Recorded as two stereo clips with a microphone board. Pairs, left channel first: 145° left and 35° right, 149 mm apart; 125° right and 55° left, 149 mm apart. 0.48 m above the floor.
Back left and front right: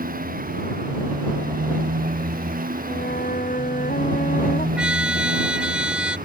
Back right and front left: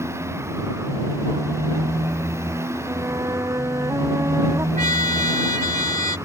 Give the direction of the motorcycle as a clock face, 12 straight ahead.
1 o'clock.